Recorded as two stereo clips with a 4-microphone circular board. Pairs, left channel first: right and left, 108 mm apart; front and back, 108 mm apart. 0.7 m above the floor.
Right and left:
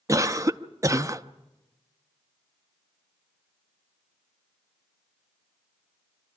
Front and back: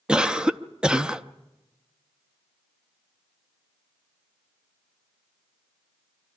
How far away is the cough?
About 0.6 m.